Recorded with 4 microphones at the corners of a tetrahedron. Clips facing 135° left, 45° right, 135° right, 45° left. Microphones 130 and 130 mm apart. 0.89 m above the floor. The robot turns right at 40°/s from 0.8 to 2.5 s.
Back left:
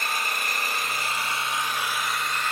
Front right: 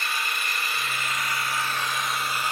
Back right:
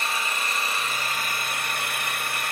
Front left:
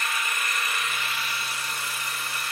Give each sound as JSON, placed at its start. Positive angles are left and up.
{"t": 0.0, "sound": "an engine running", "azimuth_deg": 170, "distance_m": 0.8}